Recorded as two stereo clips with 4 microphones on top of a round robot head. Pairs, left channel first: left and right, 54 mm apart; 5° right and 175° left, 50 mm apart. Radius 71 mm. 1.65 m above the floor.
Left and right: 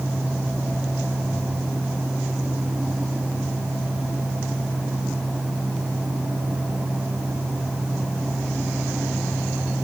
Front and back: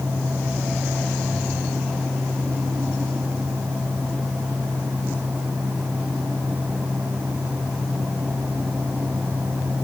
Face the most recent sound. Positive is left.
No sound to turn to.